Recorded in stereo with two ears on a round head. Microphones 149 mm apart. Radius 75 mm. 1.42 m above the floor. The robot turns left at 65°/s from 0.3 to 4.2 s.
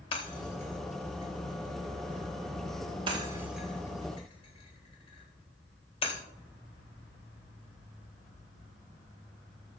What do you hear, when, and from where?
0.1 s breaking glass: 35° left (ahead or behind), 3.5 m